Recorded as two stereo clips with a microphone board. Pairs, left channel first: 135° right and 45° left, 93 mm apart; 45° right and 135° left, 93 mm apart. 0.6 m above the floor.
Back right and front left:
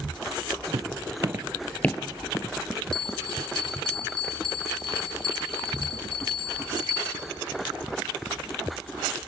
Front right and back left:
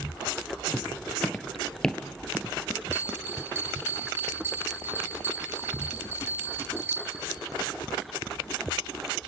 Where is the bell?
160° right, 1.2 m.